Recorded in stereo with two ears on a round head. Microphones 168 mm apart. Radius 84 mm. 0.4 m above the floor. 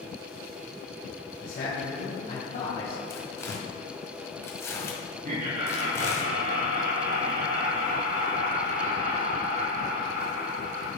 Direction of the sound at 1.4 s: 45° left (ahead or behind).